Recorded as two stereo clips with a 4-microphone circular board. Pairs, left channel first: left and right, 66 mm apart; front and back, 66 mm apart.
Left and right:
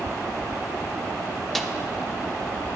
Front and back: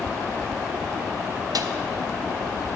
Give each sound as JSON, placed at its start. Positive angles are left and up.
{"t": 1.6, "sound": "a snare drum", "azimuth_deg": 175, "distance_m": 0.6}